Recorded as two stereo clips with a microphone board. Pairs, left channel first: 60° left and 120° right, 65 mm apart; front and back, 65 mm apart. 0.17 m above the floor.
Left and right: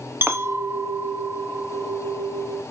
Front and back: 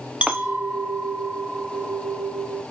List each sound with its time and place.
0.2 s a clink: 125° right, 0.8 m